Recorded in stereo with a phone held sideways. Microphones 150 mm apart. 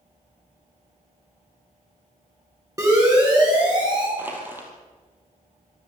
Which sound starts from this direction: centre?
Crushing, at 4.2 s.